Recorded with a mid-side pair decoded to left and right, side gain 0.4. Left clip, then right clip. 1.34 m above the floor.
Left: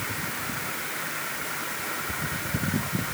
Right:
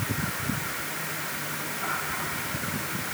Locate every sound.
Only background noise.